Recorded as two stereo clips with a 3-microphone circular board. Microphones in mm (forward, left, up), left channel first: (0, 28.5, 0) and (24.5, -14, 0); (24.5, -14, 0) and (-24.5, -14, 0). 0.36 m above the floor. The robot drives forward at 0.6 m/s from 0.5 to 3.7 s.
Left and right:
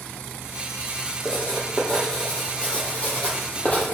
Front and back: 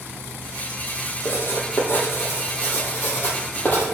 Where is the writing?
40° left, 4.5 m; by 3.9 s 60° left, 3.5 m.